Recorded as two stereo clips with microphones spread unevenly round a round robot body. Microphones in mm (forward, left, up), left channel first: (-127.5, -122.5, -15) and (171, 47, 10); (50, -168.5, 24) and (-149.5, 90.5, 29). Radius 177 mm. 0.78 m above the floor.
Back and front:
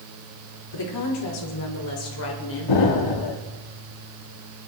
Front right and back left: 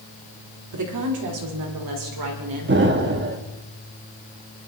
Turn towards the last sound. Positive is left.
turn(degrees=-175)